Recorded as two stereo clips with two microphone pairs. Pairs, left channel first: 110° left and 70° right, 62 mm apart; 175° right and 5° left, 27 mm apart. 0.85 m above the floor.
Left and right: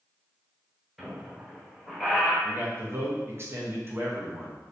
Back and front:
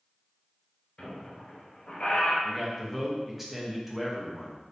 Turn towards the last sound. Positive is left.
turn(degrees=-70)